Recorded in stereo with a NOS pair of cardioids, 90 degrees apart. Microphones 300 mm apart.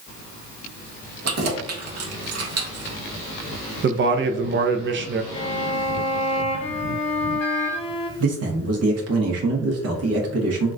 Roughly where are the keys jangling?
Ahead right.